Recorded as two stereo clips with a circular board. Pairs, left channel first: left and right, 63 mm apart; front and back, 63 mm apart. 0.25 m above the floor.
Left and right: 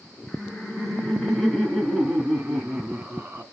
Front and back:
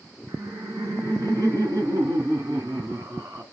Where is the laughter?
165° left, 3 m; by 3.4 s 160° right, 2 m.